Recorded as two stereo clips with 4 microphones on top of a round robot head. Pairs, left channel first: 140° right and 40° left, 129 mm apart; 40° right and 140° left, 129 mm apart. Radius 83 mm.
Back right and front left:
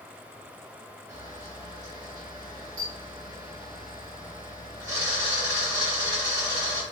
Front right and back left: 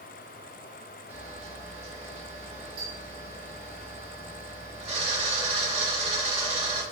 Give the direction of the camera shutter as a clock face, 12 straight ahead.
9 o'clock.